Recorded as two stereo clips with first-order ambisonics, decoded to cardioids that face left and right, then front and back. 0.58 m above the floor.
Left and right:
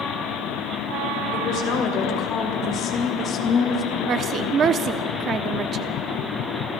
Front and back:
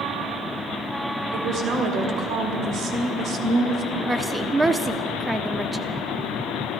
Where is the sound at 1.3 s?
135° left, 3 m; by 3.9 s 145° left, 1.2 m.